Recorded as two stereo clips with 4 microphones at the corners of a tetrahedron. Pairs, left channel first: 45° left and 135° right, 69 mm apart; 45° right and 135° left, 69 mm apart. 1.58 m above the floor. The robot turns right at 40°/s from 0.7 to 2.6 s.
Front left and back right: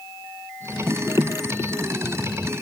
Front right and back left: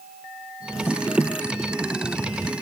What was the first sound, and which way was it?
Only background noise.